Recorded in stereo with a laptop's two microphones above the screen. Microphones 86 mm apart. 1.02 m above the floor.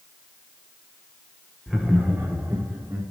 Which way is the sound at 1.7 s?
Centre (ahead or behind).